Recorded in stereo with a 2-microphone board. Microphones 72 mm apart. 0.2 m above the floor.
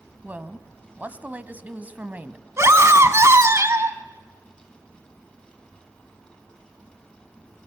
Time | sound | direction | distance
0.2 | a woman speaking | 25° right (ahead or behind) | 1.1 m
2.6 | a scream | 40° right (ahead or behind) | 1.6 m